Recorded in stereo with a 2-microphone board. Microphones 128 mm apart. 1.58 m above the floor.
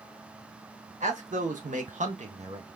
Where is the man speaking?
75° right (ahead or behind), 1.6 m; by 2.7 s 45° right (ahead or behind), 1.0 m.